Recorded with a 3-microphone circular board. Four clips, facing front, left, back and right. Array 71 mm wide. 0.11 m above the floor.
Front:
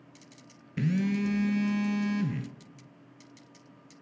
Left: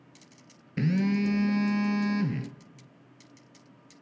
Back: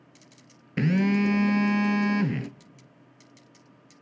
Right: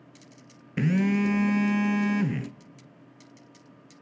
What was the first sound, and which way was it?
A phone buzzing, 160° right.